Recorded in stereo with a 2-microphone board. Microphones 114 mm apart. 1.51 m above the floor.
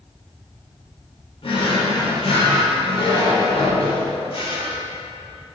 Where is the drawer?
55° left (ahead or behind), 1.9 m.